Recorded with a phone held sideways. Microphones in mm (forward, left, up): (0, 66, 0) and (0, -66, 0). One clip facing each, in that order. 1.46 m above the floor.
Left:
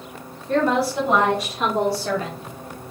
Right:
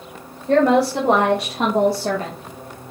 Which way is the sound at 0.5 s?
85° right.